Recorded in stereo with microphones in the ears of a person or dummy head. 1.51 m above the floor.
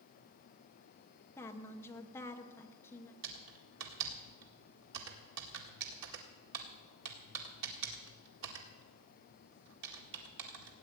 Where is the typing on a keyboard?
75° right (ahead or behind), 1.8 m.